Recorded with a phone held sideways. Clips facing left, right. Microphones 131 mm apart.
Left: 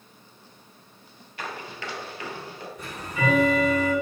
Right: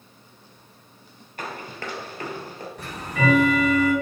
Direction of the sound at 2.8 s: 65° right (ahead or behind).